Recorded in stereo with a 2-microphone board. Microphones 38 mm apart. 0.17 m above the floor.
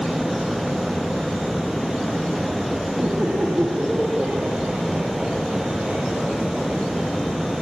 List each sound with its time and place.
3.0 s laughter: 45° right (ahead or behind), 9.5 m; by 6.8 s 20° right (ahead or behind), 6.5 m